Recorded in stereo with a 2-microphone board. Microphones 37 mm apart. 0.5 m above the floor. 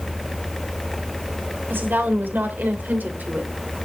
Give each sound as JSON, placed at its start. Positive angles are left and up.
{"t": 1.7, "sound": "a woman speaking", "side_deg": -65, "distance_m": 3.0}